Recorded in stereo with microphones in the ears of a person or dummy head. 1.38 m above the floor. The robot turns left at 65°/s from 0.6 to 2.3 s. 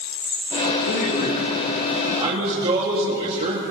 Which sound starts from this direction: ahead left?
A man speaking, at 0.9 s.